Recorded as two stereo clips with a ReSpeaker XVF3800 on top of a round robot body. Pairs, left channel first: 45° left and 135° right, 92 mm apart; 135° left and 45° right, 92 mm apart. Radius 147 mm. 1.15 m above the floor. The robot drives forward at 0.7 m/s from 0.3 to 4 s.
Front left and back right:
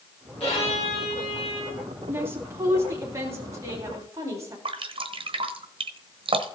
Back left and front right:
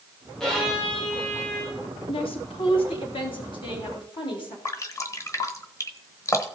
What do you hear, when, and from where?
0.4 s a violin: 50° left, 3.5 m; by 1.9 s 65° left, 3 m
2.1 s a woman speaking: 155° left, 2.0 m; by 4.5 s 165° left, 3 m
4.7 s dripping: 165° right, 1.0 m